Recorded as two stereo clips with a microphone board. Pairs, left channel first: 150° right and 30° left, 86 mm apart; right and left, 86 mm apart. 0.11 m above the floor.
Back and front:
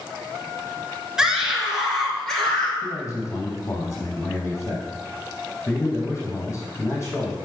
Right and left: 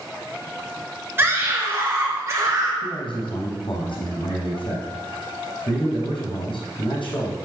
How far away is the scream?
About 1.3 m.